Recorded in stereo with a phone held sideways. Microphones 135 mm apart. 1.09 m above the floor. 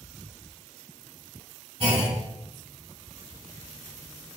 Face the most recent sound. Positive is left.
turn(degrees=-45)  # may be behind; listen again after turning